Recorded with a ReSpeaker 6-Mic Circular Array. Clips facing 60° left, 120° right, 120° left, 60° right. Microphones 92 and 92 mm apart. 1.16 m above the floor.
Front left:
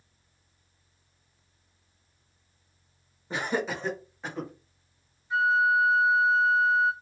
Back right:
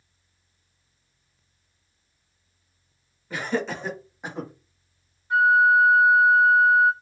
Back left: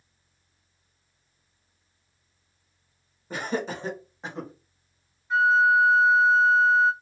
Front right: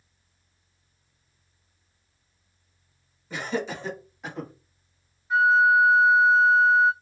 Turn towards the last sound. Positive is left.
turn(degrees=-145)